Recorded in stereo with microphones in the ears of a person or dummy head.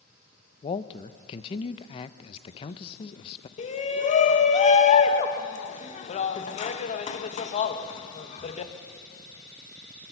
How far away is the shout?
About 1.5 m.